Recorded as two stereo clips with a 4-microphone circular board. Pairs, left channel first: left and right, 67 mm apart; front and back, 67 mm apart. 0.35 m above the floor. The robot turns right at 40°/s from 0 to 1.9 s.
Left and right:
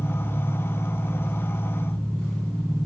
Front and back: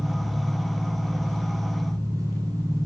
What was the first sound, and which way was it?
An engine running, 90° left.